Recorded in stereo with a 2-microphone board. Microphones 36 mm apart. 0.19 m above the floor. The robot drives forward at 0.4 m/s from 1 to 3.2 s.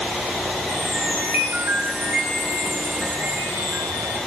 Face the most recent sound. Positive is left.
turn(degrees=-60)  # may be behind; listen again after turning